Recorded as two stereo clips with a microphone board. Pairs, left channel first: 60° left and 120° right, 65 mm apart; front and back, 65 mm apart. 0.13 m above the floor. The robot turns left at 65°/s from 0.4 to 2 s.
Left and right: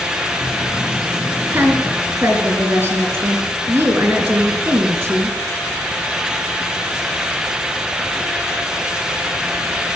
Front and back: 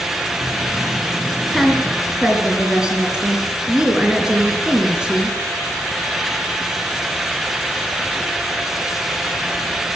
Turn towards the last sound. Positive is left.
turn(degrees=-110)